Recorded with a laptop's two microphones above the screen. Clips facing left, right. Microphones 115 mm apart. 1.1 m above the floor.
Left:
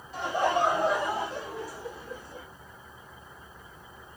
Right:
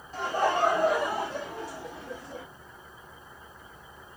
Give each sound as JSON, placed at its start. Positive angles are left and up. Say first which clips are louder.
{"t": 0.1, "sound": "laughter", "louder": "even", "side_deg": -45, "distance_m": 2.5}